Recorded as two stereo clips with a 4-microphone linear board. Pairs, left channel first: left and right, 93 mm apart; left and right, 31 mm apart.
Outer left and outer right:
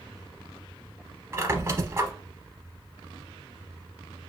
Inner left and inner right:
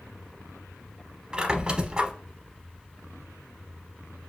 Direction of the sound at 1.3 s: 30° right (ahead or behind).